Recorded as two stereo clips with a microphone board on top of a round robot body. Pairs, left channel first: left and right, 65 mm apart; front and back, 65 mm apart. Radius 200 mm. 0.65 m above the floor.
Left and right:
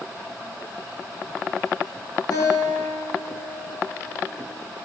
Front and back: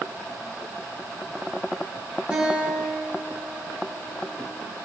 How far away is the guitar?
About 8 m.